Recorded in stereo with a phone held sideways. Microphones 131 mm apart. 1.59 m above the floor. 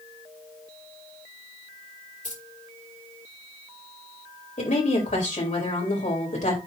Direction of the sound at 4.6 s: 70° left (ahead or behind).